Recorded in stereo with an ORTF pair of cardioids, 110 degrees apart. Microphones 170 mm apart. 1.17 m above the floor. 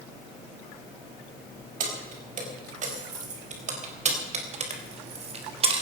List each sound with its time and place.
1.8 s keys jangling: 50° right, 5.5 m; by 5.8 s 35° right, 3.5 m